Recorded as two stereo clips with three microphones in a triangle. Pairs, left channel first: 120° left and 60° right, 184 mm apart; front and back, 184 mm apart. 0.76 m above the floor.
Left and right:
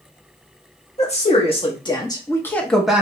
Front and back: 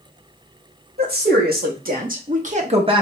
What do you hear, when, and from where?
1.0 s a woman speaking: 165° left, 1.6 m; by 3.0 s 135° right, 0.8 m